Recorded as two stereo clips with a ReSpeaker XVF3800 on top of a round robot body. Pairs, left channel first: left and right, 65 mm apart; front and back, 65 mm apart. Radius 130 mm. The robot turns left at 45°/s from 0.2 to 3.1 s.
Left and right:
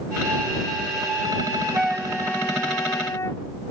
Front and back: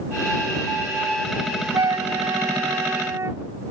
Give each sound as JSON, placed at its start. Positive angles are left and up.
{"t": 1.7, "sound": "a flute", "azimuth_deg": -165}